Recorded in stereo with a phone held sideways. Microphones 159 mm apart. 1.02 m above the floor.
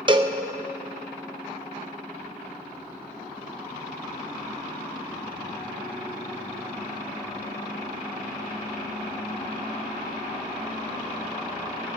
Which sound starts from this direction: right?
A cowbell, at 0.1 s.